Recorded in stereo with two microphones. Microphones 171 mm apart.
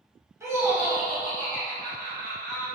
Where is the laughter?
20° right (ahead or behind), 1.2 m; by 2.6 s 30° left (ahead or behind), 1.6 m.